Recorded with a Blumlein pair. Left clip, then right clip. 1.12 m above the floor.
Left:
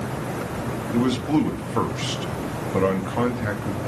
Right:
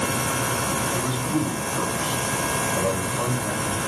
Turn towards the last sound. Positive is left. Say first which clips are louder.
# left 3 dB
turn(degrees=40)